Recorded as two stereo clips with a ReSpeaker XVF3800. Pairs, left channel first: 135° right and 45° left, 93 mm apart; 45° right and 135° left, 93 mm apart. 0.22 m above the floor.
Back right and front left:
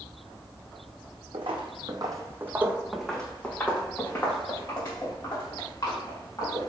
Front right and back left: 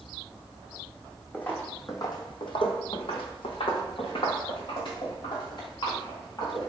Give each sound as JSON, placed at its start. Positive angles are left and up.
{"t": 1.3, "sound": "footsteps", "azimuth_deg": 30, "distance_m": 0.8}